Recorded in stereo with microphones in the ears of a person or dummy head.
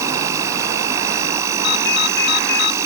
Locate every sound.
0.0 s an insect: 15° right (ahead or behind)
1.6 s a ringtone: 65° left (ahead or behind)